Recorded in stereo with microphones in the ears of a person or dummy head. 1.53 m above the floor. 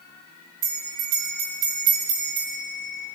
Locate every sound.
0.6 s a bell: 25° right (ahead or behind), 1.6 m